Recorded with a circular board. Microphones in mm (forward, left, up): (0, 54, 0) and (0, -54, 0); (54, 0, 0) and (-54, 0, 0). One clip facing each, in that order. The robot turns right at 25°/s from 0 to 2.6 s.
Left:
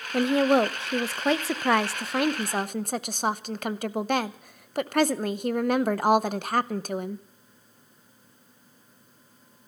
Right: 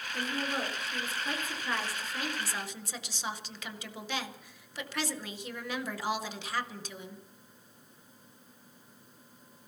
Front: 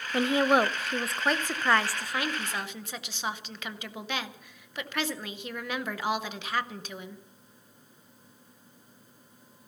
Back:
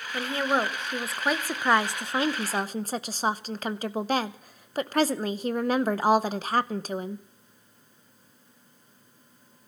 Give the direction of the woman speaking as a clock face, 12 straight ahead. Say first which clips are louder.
Left 15 dB, front 3 dB; 10 o'clock.